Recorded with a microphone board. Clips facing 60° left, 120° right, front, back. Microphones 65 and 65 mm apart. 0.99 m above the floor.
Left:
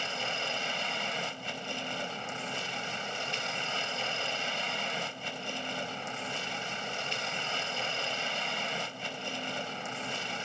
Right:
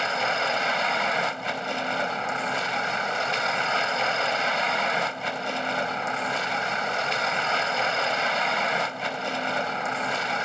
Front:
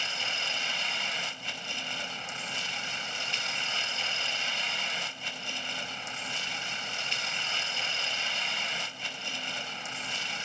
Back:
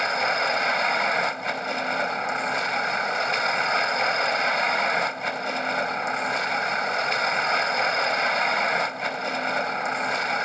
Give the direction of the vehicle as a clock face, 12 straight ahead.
5 o'clock.